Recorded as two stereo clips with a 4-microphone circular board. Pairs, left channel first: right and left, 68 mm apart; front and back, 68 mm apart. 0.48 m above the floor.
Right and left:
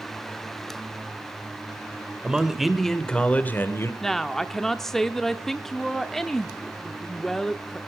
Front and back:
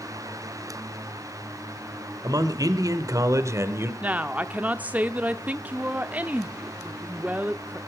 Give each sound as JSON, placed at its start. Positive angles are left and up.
{"t": 2.2, "sound": "a man speaking", "azimuth_deg": 170, "distance_m": 2.0}
{"t": 4.0, "sound": "a woman speaking", "azimuth_deg": -165, "distance_m": 0.8}